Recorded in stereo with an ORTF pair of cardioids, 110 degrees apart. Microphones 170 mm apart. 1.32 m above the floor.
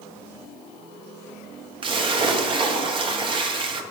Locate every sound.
1.8 s a splash: 30° right, 1.0 m